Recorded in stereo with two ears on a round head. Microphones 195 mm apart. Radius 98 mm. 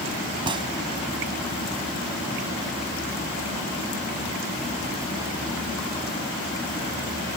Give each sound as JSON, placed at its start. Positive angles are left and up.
{"t": 0.5, "sound": "a gunshot", "side_deg": -20}